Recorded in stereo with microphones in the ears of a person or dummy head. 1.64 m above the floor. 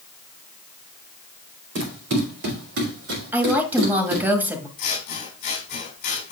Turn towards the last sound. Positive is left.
turn(degrees=55)  # may be behind; listen again after turning